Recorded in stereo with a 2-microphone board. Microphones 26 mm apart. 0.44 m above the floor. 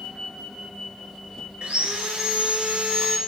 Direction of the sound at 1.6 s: 55° right (ahead or behind).